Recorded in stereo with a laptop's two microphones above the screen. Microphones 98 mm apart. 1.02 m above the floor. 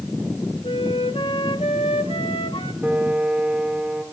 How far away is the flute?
About 1.6 m.